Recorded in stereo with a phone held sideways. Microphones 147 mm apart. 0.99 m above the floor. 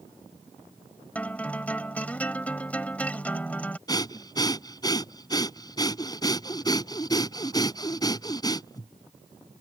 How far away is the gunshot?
I don't hear a gunshot.